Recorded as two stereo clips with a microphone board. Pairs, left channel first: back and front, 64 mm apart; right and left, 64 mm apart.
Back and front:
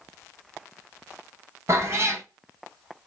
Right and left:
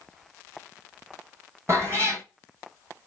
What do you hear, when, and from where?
1.7 s a cat meowing: 45° left, 1.0 m